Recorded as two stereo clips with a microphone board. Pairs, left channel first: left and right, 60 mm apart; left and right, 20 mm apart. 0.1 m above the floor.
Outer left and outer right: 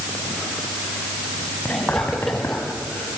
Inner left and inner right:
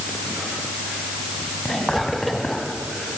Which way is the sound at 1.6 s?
30° left (ahead or behind).